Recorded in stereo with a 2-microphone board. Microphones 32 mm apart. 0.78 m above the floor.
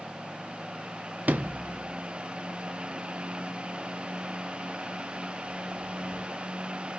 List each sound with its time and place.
1.3 s a sliding door: 55° right (ahead or behind), 0.5 m